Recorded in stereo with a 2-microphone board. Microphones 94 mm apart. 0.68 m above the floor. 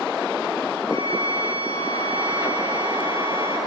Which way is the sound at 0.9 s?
60° right (ahead or behind).